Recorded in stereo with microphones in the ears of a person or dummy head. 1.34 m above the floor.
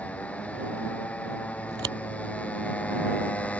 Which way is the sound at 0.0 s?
5° left (ahead or behind).